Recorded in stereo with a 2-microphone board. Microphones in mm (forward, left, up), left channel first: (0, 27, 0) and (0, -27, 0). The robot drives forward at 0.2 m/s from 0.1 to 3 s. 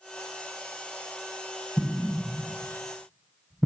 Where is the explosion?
5° left (ahead or behind), 0.9 m.